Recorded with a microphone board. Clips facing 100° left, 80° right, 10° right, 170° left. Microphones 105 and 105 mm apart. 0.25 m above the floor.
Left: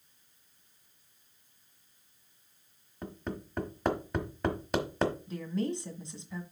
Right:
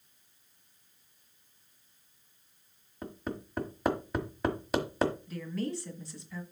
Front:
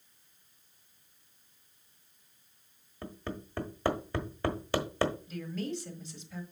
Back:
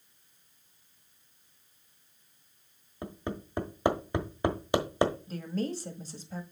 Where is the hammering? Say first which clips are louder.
Right 1 dB, back 3 dB; 160° right, 1.2 m.